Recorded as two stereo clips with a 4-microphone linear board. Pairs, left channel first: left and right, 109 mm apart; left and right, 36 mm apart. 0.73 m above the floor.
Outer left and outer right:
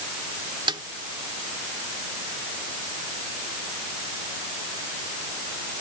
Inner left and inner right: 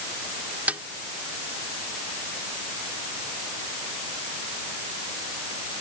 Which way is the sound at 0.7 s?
45° right (ahead or behind).